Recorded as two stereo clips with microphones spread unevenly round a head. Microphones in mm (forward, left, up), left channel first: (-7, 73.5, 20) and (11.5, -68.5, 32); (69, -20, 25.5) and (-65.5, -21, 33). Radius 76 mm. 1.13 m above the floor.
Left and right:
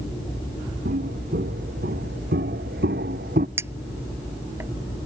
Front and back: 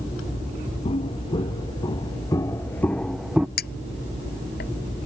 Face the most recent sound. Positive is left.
turn(degrees=-10)